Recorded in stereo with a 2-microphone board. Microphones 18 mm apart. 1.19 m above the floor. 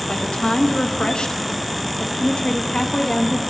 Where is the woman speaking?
65° left (ahead or behind), 1.3 m.